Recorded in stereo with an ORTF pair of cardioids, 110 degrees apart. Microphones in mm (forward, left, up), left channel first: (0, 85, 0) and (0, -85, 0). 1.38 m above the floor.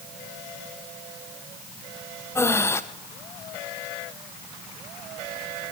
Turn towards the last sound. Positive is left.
turn(degrees=15)